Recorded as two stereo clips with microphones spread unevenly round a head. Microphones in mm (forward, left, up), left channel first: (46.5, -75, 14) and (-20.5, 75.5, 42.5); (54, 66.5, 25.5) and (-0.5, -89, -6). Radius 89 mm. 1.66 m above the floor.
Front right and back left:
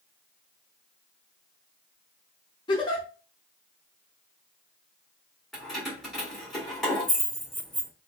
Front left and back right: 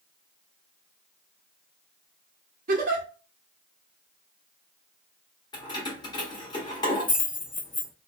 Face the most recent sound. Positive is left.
turn(degrees=30)